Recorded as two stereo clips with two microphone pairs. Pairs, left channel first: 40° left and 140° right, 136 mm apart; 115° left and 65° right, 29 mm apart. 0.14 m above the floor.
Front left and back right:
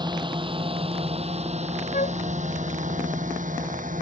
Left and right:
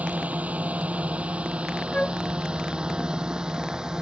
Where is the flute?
60° left.